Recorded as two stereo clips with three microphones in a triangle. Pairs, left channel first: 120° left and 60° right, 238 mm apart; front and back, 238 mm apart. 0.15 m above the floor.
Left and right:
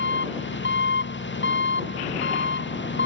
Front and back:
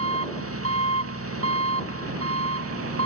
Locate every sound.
0.0 s an engine running: 160° left